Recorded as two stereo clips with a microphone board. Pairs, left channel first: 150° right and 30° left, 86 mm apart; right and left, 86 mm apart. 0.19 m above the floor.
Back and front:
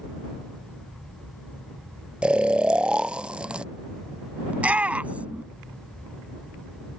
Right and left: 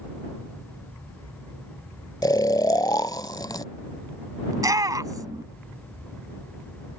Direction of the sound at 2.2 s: 50° right.